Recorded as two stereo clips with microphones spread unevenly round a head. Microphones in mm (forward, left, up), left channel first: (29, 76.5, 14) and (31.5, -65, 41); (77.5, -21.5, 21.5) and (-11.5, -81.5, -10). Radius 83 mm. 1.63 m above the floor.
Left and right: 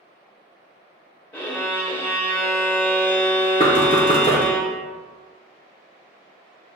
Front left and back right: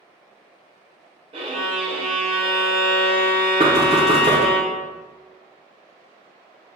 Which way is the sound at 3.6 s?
155° left.